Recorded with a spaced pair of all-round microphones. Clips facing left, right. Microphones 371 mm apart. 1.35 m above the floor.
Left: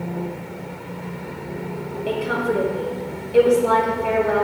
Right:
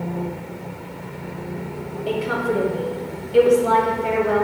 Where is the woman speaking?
5° right (ahead or behind), 1.3 m.